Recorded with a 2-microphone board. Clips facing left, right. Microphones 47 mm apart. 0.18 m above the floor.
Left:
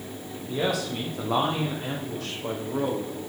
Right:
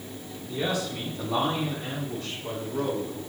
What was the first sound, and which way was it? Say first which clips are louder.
A man speaking: left 2 dB; 65° left (ahead or behind).